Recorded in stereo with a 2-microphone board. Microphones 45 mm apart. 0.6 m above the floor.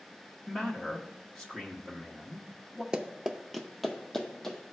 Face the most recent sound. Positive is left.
turn(degrees=10)  # may be behind; listen again after turning